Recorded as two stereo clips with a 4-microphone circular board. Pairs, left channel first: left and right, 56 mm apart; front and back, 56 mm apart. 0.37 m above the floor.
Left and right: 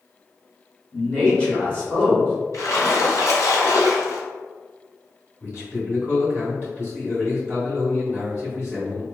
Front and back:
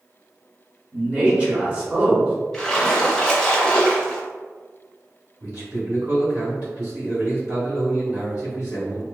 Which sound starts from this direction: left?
A splash, at 2.5 s.